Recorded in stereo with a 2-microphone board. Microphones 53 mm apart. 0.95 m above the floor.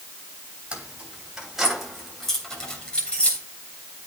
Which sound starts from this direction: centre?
Keys jangling, at 0.7 s.